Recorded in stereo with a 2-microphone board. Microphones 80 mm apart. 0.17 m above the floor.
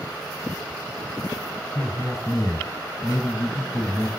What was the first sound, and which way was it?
A man speaking, 45° left (ahead or behind).